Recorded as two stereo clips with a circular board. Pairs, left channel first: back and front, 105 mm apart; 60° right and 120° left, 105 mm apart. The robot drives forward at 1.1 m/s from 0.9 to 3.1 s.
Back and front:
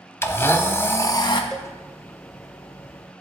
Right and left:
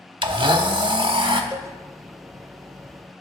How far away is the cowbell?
About 0.7 m.